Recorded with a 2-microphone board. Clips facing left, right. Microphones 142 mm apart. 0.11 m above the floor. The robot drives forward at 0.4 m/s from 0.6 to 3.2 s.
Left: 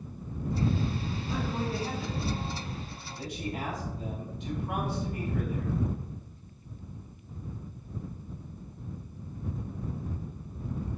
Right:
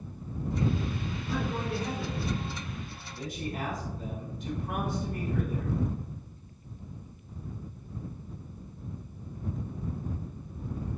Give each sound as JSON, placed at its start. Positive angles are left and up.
{"t": 1.3, "sound": "a man speaking", "side_deg": -55, "distance_m": 1.8}